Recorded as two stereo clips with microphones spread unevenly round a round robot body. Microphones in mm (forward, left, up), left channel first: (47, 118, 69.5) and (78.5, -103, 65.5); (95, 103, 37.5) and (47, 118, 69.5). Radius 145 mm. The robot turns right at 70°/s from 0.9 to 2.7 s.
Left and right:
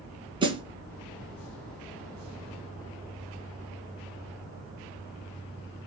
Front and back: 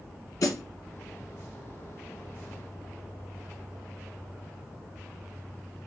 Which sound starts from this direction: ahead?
A snare drum, at 0.4 s.